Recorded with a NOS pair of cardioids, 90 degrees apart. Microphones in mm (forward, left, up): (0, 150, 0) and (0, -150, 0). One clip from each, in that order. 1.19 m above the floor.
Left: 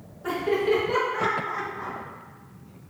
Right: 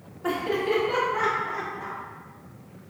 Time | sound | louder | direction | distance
0.2 | laughter | left 2 dB | 20° right | 1.9 m